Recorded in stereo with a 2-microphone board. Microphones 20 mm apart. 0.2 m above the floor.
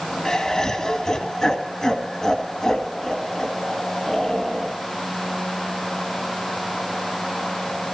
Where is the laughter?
30° left (ahead or behind), 1.9 m.